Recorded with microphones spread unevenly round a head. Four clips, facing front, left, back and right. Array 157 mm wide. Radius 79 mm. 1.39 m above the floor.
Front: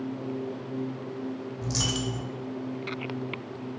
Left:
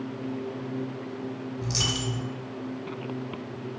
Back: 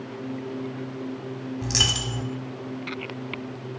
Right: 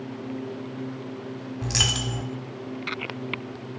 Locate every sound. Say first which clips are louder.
1.6 s a dropped coin: right 2 dB, front 3 dB; 165° right, 1.2 m